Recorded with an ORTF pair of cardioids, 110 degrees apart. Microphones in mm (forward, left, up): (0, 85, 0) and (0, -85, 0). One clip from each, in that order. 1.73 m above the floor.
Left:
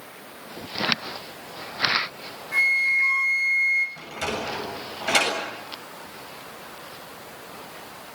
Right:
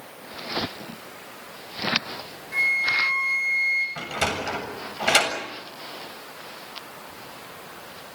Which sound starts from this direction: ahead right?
A sliding door, at 4.0 s.